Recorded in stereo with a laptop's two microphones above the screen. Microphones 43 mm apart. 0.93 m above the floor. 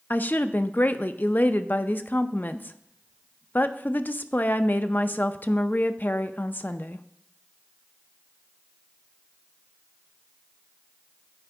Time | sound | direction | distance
0.1 | a woman speaking | 45° left (ahead or behind) | 0.5 m